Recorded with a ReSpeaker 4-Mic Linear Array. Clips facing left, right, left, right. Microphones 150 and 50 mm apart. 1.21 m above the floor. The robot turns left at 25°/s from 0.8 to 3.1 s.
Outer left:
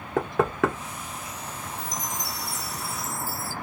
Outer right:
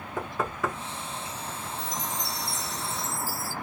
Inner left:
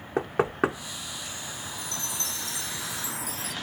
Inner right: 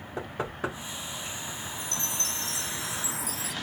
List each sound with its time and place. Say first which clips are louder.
0.2 s knocking: outer left 7 dB, inner left 8 dB; 70° left (ahead or behind), 0.9 m
1.8 s a chime: even, inner right 1 dB; 25° left, 1.8 m; by 3.5 s 10° right, 1.8 m